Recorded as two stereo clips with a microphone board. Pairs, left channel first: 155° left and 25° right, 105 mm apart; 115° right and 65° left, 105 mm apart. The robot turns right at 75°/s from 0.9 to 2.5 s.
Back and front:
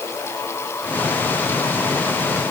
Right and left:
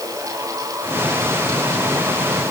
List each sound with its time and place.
Only background noise.